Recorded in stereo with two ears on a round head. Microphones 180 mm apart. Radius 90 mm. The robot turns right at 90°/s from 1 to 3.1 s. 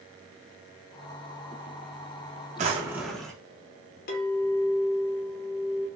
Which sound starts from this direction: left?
A clink, at 4.1 s.